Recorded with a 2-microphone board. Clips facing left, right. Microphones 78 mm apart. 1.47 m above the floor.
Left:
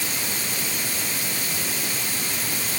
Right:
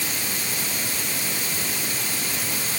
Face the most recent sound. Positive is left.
No sound to turn to.